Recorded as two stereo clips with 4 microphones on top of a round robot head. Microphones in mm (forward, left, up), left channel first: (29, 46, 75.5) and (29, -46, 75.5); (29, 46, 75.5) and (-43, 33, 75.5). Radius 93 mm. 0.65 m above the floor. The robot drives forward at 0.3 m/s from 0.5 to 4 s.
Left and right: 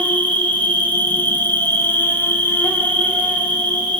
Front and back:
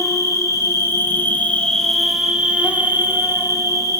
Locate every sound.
0.0 s an insect: 25° left, 0.7 m; by 4.0 s 160° left, 0.9 m